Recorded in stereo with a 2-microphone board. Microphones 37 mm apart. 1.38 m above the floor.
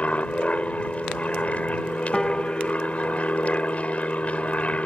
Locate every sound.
0.0 s an aircraft: 35° left (ahead or behind)
2.1 s a piano: 15° left (ahead or behind)